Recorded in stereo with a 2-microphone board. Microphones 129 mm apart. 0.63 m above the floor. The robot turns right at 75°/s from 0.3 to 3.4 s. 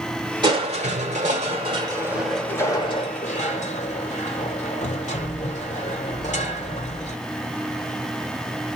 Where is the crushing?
140° right, 1.6 m; by 7.2 s 85° left, 1.6 m.